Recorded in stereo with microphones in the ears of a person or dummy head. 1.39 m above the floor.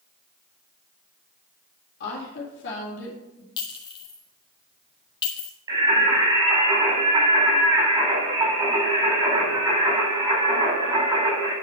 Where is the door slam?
I don't hear a door slam.